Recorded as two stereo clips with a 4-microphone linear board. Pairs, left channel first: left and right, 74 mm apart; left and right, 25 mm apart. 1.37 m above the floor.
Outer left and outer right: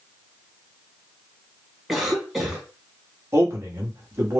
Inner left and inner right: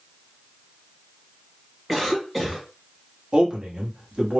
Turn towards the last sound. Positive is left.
turn(degrees=-40)  # may be behind; listen again after turning